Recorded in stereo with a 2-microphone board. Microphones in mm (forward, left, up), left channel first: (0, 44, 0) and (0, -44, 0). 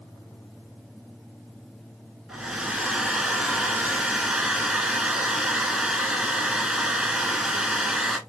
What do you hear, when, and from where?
2.3 s a hair dryer: 5° right (ahead or behind), 1.3 m